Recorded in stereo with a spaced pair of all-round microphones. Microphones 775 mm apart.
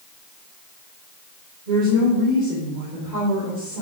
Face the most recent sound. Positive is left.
turn(degrees=-70)  # may be behind; listen again after turning